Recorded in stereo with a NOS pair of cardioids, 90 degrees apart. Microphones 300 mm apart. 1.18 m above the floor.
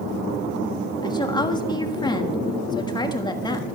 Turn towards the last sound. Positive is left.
turn(degrees=15)